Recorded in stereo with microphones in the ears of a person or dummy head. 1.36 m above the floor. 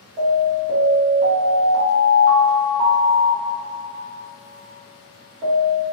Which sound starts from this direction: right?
An alarm, at 0.2 s.